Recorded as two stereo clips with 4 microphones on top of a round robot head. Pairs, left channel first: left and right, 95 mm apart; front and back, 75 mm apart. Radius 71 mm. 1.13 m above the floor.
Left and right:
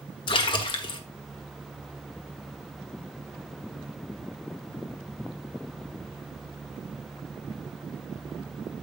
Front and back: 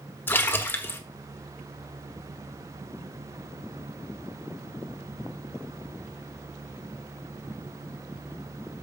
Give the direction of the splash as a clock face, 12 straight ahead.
10 o'clock.